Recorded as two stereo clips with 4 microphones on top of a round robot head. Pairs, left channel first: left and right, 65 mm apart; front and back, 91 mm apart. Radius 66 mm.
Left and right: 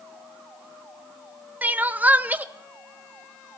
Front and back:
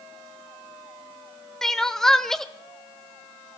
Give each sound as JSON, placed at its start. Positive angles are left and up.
{"t": 1.6, "sound": "crying", "azimuth_deg": -80, "distance_m": 0.7}